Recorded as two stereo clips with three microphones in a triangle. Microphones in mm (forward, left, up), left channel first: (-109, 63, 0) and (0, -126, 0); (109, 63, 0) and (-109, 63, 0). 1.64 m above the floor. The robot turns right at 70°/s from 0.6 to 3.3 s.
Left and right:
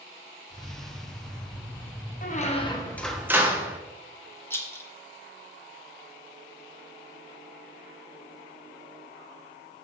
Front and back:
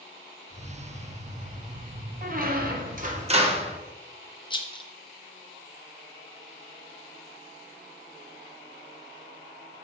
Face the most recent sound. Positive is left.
turn(degrees=50)